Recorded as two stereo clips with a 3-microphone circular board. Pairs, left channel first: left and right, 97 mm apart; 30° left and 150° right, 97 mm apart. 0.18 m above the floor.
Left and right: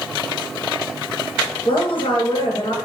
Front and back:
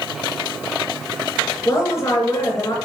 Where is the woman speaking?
80° left, 2.5 m.